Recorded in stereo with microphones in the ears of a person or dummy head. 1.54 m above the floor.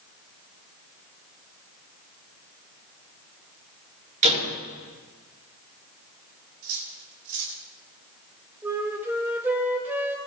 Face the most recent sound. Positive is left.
turn(degrees=-10)  # may be behind; listen again after turning